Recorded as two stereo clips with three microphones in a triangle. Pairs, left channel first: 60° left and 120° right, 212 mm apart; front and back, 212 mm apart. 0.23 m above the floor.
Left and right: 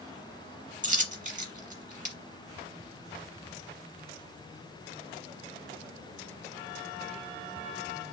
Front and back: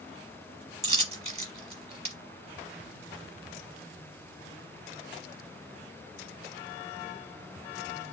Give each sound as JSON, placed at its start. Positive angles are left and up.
{"t": 0.8, "sound": "a dropped coin", "azimuth_deg": -140, "distance_m": 0.7}